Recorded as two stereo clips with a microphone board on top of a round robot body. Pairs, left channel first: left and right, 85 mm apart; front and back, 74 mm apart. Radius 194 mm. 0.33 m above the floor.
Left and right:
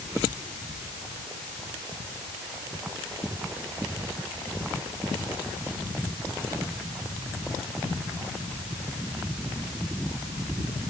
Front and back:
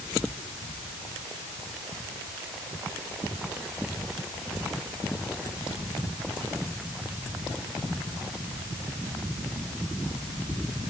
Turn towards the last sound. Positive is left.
No sound to turn to.